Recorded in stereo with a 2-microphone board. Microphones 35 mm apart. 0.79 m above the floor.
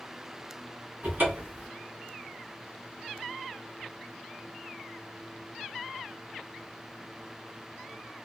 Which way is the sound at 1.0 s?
65° right (ahead or behind).